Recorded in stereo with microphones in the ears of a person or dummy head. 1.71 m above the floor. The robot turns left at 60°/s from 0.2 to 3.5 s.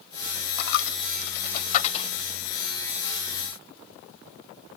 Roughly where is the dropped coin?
Left.